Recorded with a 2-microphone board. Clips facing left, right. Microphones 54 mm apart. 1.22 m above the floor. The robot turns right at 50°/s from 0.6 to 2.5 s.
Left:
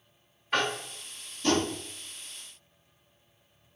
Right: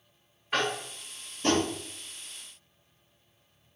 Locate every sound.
0.5 s tapping: 5° right (ahead or behind), 0.8 m; by 1.7 s 40° right (ahead or behind), 0.8 m